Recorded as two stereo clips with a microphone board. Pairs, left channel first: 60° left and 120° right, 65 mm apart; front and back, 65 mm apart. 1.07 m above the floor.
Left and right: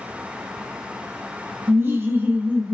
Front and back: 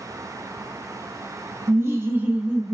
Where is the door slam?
I don't hear a door slam.